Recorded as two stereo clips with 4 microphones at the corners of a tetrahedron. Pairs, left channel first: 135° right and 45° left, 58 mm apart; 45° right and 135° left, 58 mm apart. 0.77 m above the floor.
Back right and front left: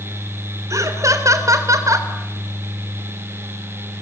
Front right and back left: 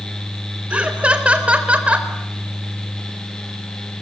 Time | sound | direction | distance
0.7 | laughter | 65° left | 3.5 m